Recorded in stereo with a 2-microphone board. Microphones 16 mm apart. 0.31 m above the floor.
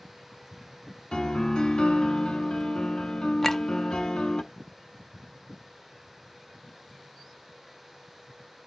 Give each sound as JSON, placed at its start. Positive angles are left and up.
{"t": 1.1, "sound": "a piano", "side_deg": 80, "distance_m": 0.7}
{"t": 3.4, "sound": "a clink", "side_deg": 25, "distance_m": 0.6}